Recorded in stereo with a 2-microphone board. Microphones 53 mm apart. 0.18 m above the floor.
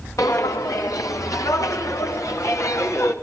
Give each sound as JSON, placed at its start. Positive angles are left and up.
{"t": 0.2, "sound": "footsteps", "side_deg": 80, "distance_m": 2.0}